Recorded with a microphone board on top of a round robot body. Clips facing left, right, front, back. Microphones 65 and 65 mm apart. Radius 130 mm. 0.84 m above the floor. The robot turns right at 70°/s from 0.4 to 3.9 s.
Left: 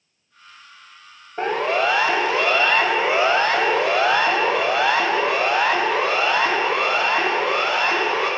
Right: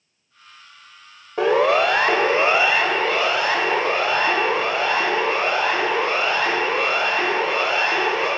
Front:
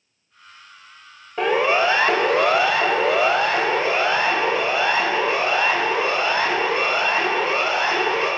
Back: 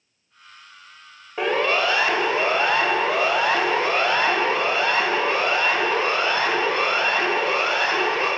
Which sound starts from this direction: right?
A siren, at 1.4 s.